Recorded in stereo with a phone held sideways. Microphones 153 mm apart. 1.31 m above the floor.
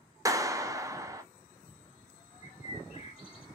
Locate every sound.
0.2 s a clap: 20° right (ahead or behind), 0.6 m
2.4 s a bird: 40° left (ahead or behind), 1.1 m